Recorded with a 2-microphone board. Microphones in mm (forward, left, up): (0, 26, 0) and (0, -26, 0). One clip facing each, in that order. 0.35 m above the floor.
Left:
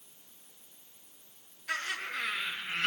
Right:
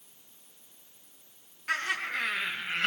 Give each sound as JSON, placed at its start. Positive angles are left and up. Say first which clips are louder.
{"t": 1.7, "sound": "laughter", "louder": "right 4 dB", "side_deg": -50, "distance_m": 3.0}